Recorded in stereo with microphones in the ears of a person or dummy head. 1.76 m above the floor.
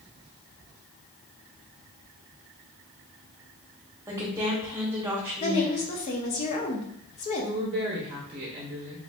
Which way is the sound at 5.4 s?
30° left (ahead or behind).